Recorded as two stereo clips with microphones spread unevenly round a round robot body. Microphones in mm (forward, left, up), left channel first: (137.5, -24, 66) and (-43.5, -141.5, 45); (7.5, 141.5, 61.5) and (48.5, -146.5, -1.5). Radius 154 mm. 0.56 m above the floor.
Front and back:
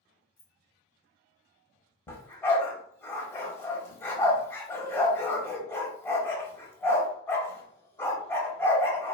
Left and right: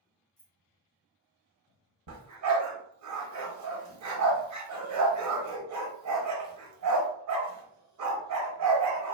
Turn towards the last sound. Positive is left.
turn(degrees=-45)